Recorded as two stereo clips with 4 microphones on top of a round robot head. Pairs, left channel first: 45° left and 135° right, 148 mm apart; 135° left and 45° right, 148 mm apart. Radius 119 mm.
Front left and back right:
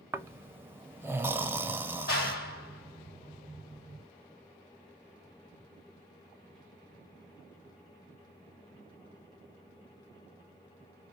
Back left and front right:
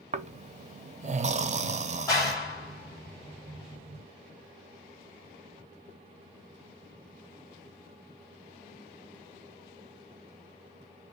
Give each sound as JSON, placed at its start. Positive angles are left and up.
{"t": 0.1, "sound": "snoring", "azimuth_deg": -60, "distance_m": 0.6}
{"t": 2.1, "sound": "a clap", "azimuth_deg": 65, "distance_m": 2.0}